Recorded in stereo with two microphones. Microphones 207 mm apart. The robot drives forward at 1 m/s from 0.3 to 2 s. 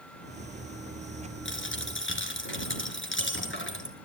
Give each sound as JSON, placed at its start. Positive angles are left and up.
{"t": 1.4, "sound": "a dropped coin", "side_deg": 80, "distance_m": 3.0}